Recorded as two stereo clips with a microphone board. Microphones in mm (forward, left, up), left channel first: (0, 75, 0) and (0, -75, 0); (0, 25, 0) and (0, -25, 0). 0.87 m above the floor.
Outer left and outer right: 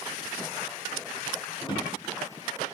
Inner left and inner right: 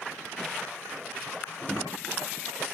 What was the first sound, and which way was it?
A drawer, 30° left (ahead or behind).